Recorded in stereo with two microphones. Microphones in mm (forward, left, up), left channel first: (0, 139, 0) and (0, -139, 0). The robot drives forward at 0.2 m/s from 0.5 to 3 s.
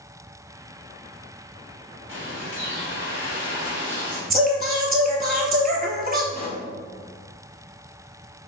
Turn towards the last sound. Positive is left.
turn(degrees=35)  # may be behind; listen again after turning